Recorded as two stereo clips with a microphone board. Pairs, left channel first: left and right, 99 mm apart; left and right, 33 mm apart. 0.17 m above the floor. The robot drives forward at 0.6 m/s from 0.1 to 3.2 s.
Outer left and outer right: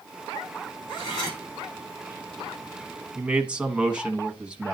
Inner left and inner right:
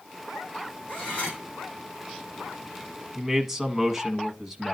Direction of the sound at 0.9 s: 45° left (ahead or behind).